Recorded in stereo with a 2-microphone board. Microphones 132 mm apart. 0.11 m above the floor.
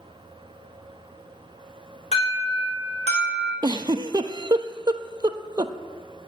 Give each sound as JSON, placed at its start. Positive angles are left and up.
{"t": 2.1, "sound": "an alarm", "side_deg": 60, "distance_m": 5.0}
{"t": 3.6, "sound": "a giggle", "side_deg": -35, "distance_m": 0.7}